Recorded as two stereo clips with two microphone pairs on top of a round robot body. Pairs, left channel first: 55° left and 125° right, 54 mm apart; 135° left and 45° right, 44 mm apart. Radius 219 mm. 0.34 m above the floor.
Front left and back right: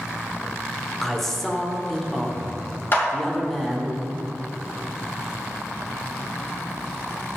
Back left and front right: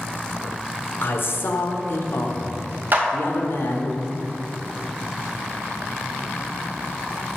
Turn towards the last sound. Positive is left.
turn(degrees=5)